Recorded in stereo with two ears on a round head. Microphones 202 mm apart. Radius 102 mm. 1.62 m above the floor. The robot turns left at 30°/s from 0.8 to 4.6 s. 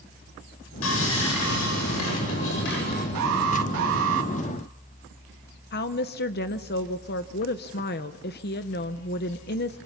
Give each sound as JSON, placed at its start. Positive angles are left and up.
{"t": 0.8, "sound": "sawing", "azimuth_deg": 105, "distance_m": 9.0}
{"t": 3.1, "sound": "an alarm", "azimuth_deg": -85, "distance_m": 3.0}
{"t": 5.7, "sound": "a woman speaking", "side_deg": 45, "distance_m": 0.7}